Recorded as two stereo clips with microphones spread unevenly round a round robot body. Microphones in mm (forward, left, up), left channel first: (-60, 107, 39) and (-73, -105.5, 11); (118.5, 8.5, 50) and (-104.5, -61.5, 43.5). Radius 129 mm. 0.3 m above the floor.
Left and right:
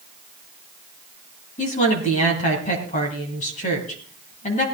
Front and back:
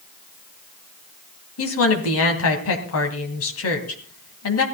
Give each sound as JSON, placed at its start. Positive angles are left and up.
{"t": 1.6, "sound": "a woman speaking", "azimuth_deg": 25, "distance_m": 2.5}